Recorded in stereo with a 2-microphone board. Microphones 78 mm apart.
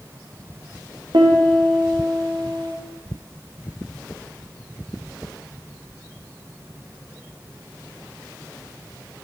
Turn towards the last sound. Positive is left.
turn(degrees=-75)  # may be behind; listen again after turning